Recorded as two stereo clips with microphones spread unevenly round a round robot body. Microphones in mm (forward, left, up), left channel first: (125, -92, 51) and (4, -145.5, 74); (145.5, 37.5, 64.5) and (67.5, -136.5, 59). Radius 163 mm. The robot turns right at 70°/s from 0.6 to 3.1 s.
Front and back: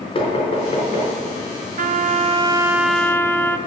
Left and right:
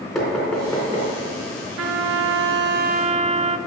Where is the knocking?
25° right, 4 m; by 1.1 s 15° left, 4 m.